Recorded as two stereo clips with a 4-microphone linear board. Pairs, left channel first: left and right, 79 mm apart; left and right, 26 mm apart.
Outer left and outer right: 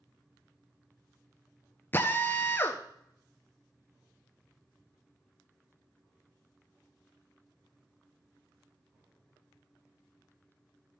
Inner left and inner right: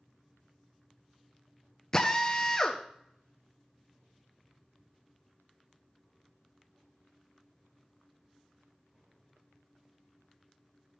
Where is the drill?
25° left (ahead or behind), 1.0 m.